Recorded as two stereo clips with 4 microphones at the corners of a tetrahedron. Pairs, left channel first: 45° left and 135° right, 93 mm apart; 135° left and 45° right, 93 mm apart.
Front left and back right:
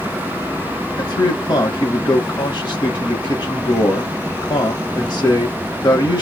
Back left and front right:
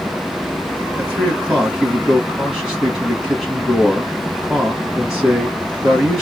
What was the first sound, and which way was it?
A man speaking, 40° left.